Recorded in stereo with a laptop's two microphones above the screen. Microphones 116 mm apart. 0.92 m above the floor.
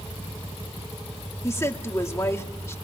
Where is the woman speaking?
25° left (ahead or behind), 2 m.